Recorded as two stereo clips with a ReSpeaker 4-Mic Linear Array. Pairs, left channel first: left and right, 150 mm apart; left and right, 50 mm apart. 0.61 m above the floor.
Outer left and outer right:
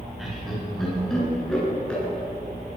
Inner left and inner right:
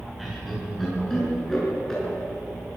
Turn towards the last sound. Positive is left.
turn(degrees=10)  # may be behind; listen again after turning